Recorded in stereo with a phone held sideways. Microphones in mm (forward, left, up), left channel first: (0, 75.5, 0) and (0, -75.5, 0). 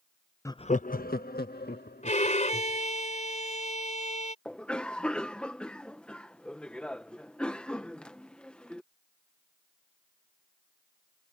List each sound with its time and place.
0.5 s laughter: 15° left (ahead or behind); by 2.8 s 85° left
2.0 s a violin: 50° left (ahead or behind)
4.5 s a cough: 5° left (ahead or behind)